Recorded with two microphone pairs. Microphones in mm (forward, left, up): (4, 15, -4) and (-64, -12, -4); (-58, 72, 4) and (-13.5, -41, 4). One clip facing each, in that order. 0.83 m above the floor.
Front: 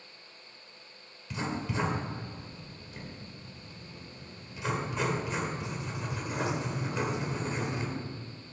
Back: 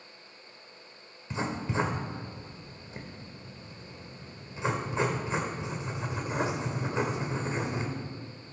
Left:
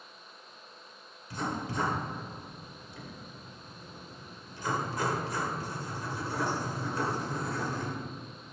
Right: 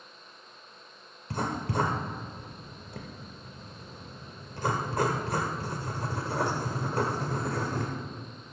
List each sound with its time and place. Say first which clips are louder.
1.3 s writing: back 2 dB, right 3 dB; 100° right, 1.7 m